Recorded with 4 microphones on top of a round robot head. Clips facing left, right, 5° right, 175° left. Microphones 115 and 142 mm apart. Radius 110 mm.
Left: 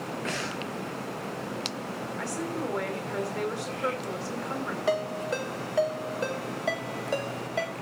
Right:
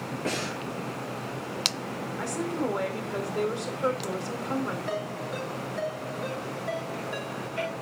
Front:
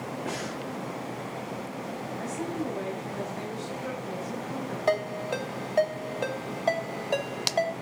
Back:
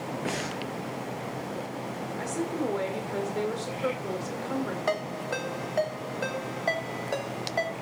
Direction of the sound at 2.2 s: 160° right.